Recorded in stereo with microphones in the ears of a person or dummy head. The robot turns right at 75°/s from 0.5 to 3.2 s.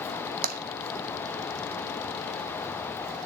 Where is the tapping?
45° right (ahead or behind), 0.7 m; by 0.6 s 55° right (ahead or behind), 0.7 m.